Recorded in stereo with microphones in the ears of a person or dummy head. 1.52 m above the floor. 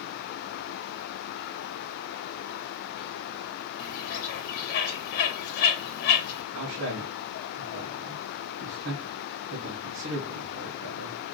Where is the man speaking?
70° right (ahead or behind), 1.0 m.